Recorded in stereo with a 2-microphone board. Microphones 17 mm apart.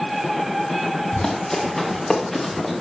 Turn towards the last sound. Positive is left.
turn(degrees=10)  # may be behind; listen again after turning